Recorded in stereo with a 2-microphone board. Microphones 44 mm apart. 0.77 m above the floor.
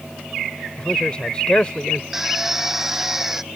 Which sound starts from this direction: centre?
A drill, at 2.1 s.